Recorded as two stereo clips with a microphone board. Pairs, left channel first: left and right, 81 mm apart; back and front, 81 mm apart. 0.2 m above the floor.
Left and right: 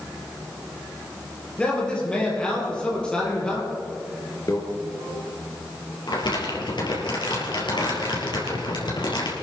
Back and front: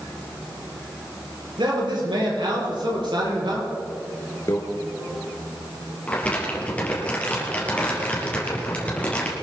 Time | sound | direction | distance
1.6 | a man speaking | 15° left | 5.5 m
4.5 | a microwave | 135° left | 2.5 m
6.1 | crumpling | 105° left | 4 m